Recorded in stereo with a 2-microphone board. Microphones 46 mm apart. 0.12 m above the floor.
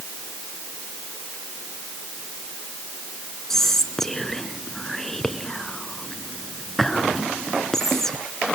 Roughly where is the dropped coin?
I don't hear a dropped coin.